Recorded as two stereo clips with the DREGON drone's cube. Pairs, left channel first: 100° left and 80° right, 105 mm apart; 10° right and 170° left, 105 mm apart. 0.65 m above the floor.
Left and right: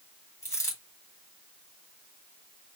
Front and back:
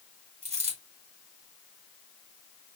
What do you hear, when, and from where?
0.4 s a dropped coin: 165° left, 2.5 m